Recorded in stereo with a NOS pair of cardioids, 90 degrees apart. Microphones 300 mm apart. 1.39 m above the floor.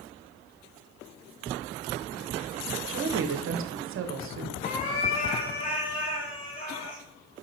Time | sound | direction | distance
2.9 | a woman speaking | 45° right | 0.6 m
4.6 | a cat meowing | 25° left | 1.9 m